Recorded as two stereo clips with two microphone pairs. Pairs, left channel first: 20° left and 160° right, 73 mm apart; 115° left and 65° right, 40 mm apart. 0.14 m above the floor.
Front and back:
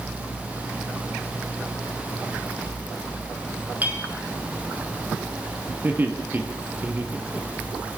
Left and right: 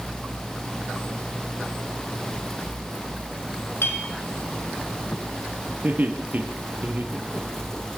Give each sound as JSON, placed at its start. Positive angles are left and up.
{"t": 3.8, "sound": "a clink", "azimuth_deg": 130, "distance_m": 4.5}
{"t": 5.8, "sound": "laughter", "azimuth_deg": -100, "distance_m": 3.5}